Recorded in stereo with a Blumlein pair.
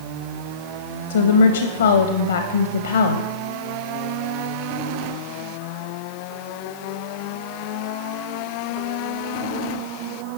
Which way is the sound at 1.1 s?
65° left.